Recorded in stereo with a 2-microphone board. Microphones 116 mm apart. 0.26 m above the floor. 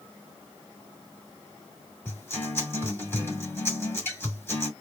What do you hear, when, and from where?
2.0 s a guitar: 20° left (ahead or behind), 2 m